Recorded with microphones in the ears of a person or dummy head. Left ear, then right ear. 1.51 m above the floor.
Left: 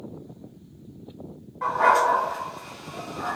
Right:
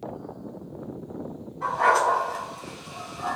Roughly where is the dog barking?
Left.